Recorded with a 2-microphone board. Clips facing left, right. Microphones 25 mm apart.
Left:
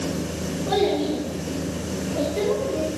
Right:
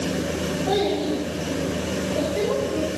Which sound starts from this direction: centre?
A child speaking, at 0.7 s.